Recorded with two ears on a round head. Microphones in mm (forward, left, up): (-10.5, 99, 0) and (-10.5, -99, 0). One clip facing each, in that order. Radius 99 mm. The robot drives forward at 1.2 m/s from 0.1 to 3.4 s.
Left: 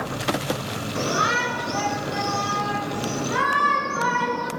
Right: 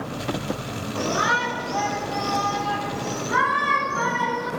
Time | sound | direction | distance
0.9 | a shout | 30° left (ahead or behind) | 2.5 m